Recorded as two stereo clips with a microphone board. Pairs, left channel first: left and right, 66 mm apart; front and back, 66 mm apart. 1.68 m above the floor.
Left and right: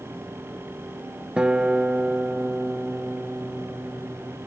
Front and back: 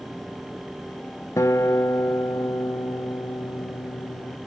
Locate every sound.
1.4 s a guitar: 15° right, 0.9 m